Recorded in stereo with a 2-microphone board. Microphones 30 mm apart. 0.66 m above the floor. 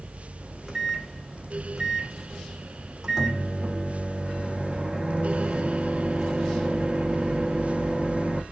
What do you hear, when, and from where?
0.4 s a microwave: 20° right (ahead or behind), 0.8 m